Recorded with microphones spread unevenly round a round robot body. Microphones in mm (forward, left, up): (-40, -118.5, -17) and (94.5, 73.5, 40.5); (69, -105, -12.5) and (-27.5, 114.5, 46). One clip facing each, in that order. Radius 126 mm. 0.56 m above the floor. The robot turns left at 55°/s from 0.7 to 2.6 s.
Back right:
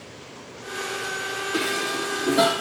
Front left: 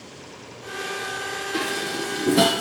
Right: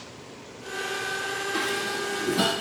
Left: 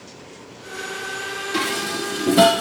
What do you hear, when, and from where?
1.5 s dishes clattering: 155° left, 1.0 m; by 2.6 s 100° left, 1.0 m